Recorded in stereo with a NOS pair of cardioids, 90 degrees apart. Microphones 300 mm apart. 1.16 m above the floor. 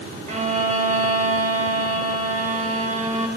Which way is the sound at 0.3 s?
25° right.